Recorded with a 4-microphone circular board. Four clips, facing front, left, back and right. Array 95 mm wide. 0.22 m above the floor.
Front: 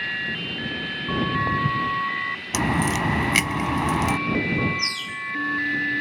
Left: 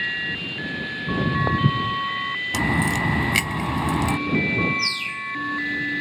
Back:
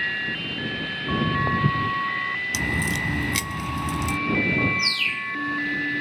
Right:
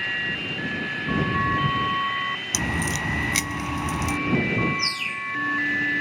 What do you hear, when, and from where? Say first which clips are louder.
1.1 s footsteps: left 1 dB, even; 95° left
2.5 s a crack: left 7 dB, front 7 dB; 30° left
4.8 s a bird: even, back 2 dB; straight behind